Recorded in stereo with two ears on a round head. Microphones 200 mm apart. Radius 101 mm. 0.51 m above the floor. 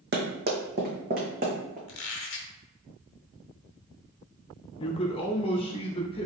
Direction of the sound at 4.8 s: 25° left (ahead or behind).